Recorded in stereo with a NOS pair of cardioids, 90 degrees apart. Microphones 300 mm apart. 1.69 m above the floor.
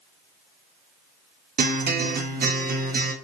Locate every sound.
1.6 s a guitar: 30° right, 0.6 m